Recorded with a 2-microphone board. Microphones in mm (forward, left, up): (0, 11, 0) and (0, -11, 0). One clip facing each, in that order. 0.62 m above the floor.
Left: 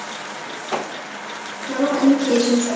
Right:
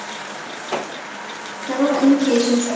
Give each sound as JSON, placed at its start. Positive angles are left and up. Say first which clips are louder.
{"t": 1.7, "sound": "a woman speaking", "louder": "right 1 dB", "side_deg": -30, "distance_m": 0.9}